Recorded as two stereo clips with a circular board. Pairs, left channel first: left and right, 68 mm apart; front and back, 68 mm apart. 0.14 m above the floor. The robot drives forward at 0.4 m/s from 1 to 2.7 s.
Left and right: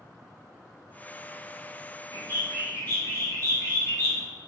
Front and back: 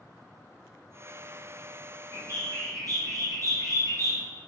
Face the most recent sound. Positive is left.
turn(degrees=145)